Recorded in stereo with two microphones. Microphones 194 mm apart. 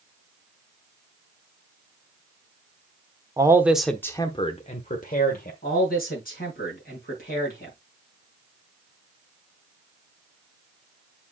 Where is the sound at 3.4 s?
20° right (ahead or behind), 1.0 m; by 5.5 s 45° left (ahead or behind), 1.6 m.